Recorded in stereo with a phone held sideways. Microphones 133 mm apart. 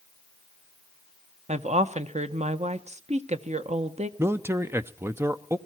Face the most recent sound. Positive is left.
turn(degrees=-20)  # may be behind; listen again after turning